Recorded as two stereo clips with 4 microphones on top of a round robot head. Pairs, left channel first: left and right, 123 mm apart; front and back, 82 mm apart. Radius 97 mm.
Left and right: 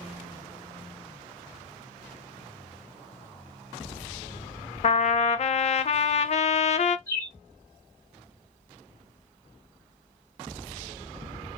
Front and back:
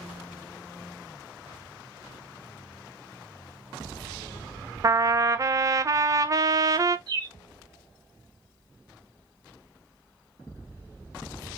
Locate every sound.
4.8 s a trumpet: 125° left, 0.6 m
7.1 s a bird: 150° left, 2 m